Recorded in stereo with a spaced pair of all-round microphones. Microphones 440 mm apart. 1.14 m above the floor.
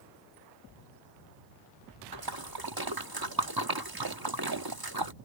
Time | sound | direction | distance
2.1 | a splash | 50° right (ahead or behind) | ?